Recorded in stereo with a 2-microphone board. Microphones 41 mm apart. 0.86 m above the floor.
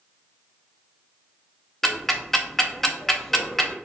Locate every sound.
1.8 s ticking: 5° left (ahead or behind), 0.6 m